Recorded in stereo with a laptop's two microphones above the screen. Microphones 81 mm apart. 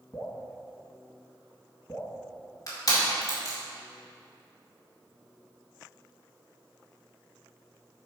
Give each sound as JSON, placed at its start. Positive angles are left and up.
{"t": 0.1, "sound": "dripping", "side_deg": 35, "distance_m": 1.5}
{"t": 2.7, "sound": "crushing", "side_deg": 45, "distance_m": 2.5}